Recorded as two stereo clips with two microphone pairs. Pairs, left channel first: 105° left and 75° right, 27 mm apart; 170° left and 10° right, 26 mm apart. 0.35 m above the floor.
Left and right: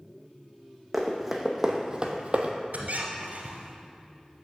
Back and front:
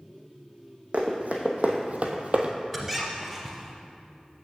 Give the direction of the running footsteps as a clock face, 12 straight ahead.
12 o'clock.